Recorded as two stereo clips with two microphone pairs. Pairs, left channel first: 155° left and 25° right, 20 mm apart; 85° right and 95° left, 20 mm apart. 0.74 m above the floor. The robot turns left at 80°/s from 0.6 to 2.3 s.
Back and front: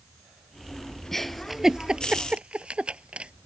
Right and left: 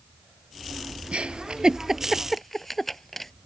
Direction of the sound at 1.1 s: 85° left.